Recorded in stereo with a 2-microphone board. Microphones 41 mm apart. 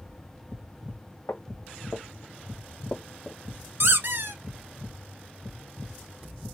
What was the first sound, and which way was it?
Footsteps, 80° left.